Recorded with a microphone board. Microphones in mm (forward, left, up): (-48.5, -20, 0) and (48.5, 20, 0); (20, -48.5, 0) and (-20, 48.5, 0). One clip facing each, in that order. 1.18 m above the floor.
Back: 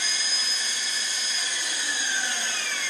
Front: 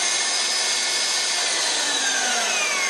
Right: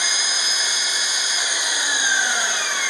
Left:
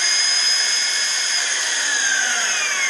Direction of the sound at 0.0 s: 10° left.